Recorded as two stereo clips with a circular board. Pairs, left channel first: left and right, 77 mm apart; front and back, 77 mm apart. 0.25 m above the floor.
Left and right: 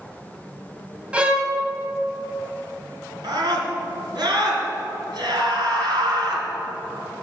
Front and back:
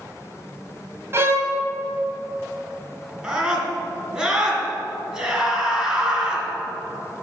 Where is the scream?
105° right, 3 m.